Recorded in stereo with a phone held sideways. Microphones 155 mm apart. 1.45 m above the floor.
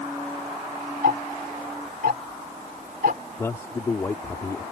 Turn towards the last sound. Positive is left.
turn(degrees=15)  # may be behind; listen again after turning